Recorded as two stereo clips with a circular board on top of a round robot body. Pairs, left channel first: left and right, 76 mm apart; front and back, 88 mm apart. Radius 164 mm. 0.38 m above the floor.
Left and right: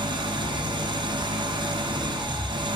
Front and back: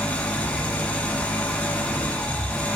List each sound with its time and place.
0.0 s an engine running: 75° right, 1.1 m